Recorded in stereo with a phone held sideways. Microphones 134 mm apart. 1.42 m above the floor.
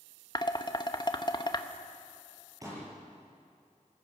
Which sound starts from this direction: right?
A pop, at 2.6 s.